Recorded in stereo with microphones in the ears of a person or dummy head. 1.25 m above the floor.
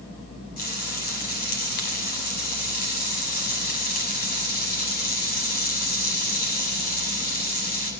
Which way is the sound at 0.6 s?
45° left (ahead or behind).